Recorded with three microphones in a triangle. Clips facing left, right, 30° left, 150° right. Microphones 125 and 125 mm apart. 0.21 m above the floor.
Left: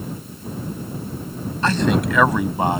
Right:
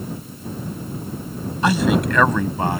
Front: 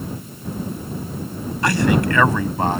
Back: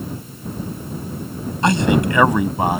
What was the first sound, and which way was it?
A man speaking, 145° right.